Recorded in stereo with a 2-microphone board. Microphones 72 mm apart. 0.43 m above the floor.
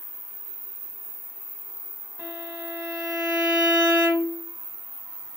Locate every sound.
2.2 s a violin: 25° right (ahead or behind), 0.8 m